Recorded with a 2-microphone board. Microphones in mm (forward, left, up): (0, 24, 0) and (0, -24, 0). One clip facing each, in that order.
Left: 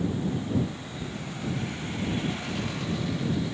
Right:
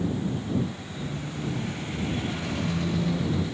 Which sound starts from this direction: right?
A squeak, at 1.0 s.